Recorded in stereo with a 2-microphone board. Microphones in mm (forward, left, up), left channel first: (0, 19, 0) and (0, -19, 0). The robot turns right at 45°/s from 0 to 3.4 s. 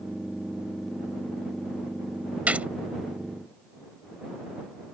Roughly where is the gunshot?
Right.